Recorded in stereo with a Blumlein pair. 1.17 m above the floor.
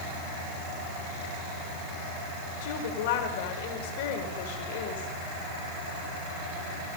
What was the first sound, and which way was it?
A woman speaking, 50° left.